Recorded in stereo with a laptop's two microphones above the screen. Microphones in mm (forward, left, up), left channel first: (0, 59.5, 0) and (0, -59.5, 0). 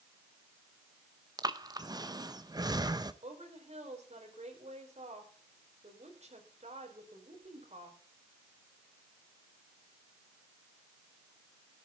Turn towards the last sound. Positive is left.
turn(degrees=-65)  # may be behind; listen again after turning